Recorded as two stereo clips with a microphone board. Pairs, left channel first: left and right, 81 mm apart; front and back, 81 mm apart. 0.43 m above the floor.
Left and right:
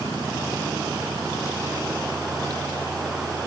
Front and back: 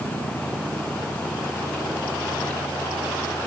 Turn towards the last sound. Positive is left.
No sound to turn to.